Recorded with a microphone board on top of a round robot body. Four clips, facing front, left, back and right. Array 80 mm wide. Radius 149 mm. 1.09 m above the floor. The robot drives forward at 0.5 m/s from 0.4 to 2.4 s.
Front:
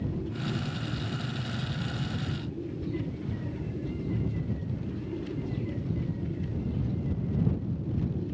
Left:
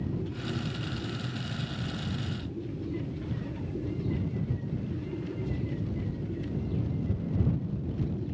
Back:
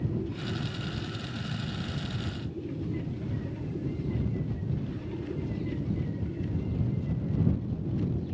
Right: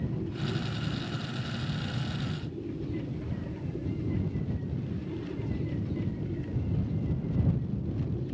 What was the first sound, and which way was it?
Only background noise.